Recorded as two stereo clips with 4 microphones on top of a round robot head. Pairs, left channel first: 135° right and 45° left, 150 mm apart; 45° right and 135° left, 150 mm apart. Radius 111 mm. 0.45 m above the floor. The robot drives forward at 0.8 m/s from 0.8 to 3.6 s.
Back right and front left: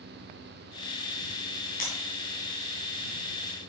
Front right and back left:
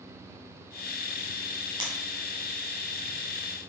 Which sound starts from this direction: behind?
Breaking glass, at 1.8 s.